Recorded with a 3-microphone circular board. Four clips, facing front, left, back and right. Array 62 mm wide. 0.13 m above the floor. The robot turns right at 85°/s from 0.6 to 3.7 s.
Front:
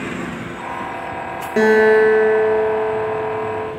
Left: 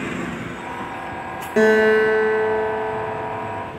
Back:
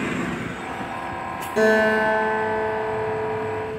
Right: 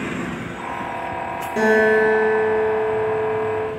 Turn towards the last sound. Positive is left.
turn(degrees=-150)